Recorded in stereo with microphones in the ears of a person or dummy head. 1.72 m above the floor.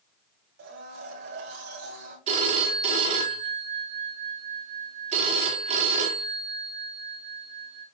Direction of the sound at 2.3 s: 45° right (ahead or behind).